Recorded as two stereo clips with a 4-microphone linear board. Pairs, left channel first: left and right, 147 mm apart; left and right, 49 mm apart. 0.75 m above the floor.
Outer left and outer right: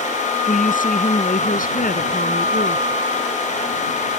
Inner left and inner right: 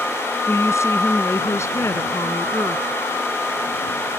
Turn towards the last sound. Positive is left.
turn(degrees=70)  # may be behind; listen again after turning